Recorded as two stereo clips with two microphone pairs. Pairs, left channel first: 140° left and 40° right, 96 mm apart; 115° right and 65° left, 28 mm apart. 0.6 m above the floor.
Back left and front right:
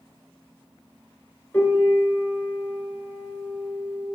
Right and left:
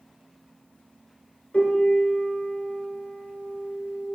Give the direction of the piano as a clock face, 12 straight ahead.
5 o'clock.